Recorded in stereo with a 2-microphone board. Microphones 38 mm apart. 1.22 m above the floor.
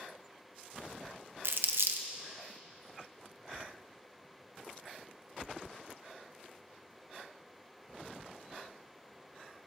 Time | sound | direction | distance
1.4 | crumpling | 75° right (ahead or behind) | 0.8 m